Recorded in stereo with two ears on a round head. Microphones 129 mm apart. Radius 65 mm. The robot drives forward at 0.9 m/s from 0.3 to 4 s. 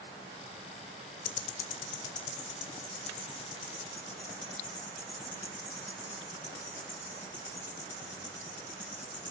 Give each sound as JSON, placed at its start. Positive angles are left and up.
{"t": 1.2, "sound": "ticking", "side_deg": 65, "distance_m": 0.5}